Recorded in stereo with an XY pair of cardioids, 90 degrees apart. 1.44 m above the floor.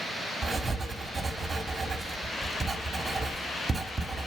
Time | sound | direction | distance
0.4 | writing | 35° right | 2 m